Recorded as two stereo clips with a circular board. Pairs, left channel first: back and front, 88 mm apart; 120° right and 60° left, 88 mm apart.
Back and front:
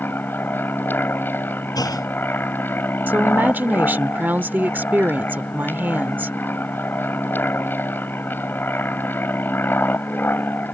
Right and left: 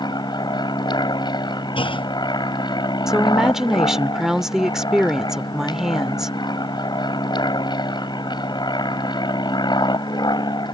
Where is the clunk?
135° right.